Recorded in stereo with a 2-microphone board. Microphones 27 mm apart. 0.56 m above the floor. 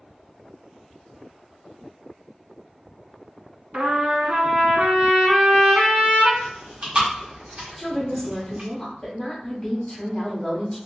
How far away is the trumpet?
About 0.9 m.